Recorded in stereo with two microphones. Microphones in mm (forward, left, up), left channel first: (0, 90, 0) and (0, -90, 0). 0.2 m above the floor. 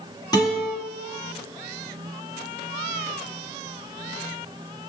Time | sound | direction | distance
0.3 | a guitar | 20° left (ahead or behind) | 1.6 m